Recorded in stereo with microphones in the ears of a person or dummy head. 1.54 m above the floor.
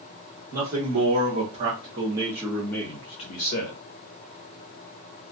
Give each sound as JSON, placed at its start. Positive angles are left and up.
{"t": 0.5, "sound": "a man speaking", "side_deg": -55, "distance_m": 1.3}